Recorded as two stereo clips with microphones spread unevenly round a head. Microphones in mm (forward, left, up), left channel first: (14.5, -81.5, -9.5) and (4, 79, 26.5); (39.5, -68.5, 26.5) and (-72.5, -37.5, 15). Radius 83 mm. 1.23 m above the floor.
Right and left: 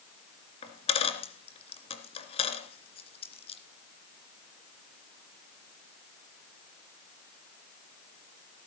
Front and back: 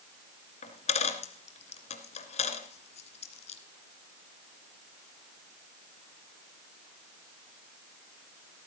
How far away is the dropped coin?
About 2 m.